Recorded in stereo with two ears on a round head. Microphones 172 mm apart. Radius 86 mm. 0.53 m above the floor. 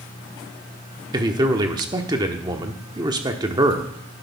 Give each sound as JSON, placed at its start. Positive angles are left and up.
{"t": 1.1, "sound": "a man speaking", "side_deg": -20, "distance_m": 1.1}